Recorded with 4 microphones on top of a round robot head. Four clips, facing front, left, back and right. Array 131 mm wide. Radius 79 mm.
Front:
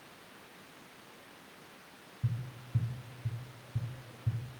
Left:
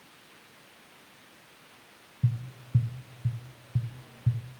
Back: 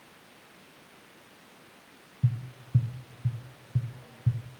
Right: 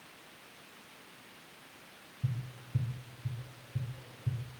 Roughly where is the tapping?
Behind left.